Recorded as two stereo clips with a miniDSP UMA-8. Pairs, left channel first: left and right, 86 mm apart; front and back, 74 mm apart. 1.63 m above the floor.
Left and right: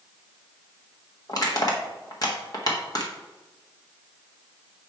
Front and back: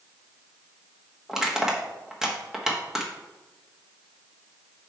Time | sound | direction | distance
1.3 | crushing | 100° left | 1.3 m